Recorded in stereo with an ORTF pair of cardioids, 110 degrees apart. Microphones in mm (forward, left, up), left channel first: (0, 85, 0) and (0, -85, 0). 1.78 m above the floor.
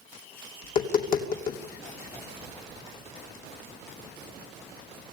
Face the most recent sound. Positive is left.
turn(degrees=55)